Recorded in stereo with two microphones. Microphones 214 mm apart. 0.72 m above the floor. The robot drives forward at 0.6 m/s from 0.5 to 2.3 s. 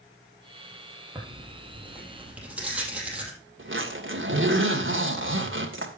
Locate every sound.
1.1 s tearing paper: 5° right (ahead or behind), 3.5 m
3.6 s a zipper: 65° right (ahead or behind), 2.5 m